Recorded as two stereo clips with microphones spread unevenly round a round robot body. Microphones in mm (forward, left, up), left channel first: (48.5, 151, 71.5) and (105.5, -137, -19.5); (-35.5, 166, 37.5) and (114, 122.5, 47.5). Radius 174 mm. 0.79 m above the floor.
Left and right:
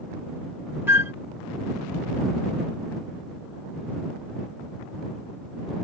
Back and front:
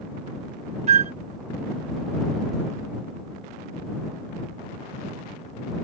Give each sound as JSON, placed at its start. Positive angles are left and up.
{"t": 0.9, "sound": "a flute", "azimuth_deg": 15}